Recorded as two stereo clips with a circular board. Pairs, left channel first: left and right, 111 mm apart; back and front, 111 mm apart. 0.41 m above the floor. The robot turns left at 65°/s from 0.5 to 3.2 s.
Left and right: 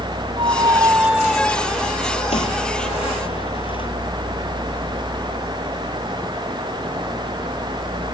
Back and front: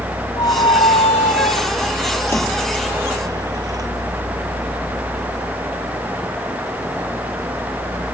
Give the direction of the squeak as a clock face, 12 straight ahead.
4 o'clock.